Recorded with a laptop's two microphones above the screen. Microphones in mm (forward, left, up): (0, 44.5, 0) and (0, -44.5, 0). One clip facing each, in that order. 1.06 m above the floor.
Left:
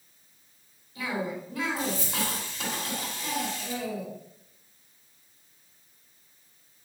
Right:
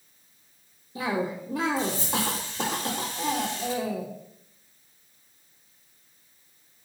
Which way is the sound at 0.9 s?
75° right (ahead or behind).